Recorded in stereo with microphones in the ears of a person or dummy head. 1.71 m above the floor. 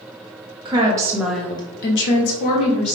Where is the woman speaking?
25° right (ahead or behind), 1.3 m; by 3.0 s 80° left, 1.4 m.